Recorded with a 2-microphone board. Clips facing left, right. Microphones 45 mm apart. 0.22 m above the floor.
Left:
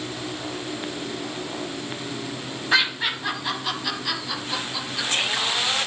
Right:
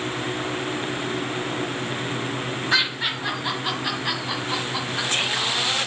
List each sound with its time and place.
2.7 s laughter: 5° left (ahead or behind), 1.6 m; by 5.3 s 35° right (ahead or behind), 2.5 m